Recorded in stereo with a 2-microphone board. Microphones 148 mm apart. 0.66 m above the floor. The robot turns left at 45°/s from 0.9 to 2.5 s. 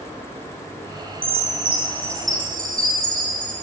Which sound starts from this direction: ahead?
A chime, at 1.2 s.